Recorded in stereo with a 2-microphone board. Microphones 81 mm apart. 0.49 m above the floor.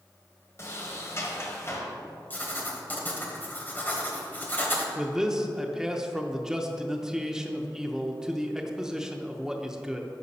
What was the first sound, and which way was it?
A sliding door, 35° left (ahead or behind).